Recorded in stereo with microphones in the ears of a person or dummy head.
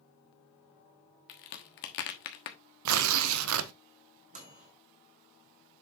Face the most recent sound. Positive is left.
turn(degrees=-45)  # may be behind; listen again after turning